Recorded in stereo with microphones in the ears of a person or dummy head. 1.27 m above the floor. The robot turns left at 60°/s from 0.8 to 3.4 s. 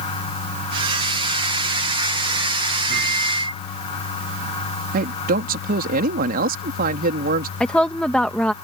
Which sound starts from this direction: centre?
A woman speaking, at 7.6 s.